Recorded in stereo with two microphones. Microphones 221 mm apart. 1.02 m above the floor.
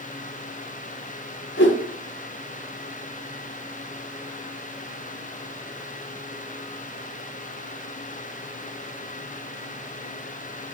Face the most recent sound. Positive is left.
turn(degrees=70)  # may be behind; listen again after turning